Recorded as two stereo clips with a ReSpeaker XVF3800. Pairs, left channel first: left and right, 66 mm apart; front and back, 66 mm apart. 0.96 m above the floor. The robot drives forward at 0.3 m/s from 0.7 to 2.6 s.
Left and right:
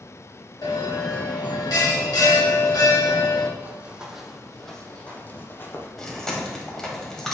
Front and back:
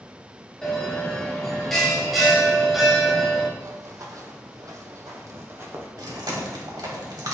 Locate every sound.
0.6 s a bell: 80° left, 2.5 m; by 3.5 s 95° left, 2.5 m
3.6 s running footsteps: 155° right, 1.7 m; by 5.9 s 135° left, 2.0 m
6.0 s chewing: 170° left, 2 m